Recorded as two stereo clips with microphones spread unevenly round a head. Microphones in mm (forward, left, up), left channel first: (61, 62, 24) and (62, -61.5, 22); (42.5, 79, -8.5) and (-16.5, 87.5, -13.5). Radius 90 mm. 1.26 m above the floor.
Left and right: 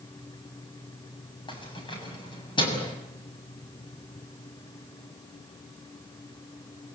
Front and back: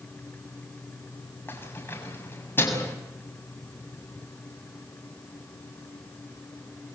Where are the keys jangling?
40° left, 7 m.